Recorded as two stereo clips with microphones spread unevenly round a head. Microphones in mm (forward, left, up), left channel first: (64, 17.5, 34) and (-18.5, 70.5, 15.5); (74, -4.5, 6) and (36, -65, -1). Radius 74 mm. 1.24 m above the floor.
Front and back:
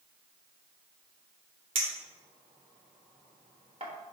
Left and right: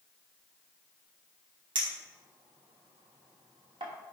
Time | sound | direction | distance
1.8 | a clink | 155° right | 1.1 m